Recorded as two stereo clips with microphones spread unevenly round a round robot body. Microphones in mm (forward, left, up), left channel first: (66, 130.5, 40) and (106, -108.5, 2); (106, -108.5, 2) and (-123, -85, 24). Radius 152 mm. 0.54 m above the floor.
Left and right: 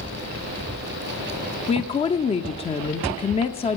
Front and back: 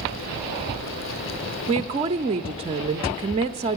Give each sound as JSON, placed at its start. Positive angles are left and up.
{"t": 1.7, "sound": "a woman speaking", "azimuth_deg": 145, "distance_m": 0.6}